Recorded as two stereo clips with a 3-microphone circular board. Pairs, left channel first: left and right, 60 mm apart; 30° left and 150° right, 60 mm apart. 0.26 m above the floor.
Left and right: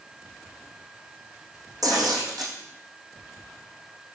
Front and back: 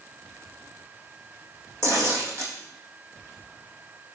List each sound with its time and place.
1.8 s tearing paper: 105° right, 4 m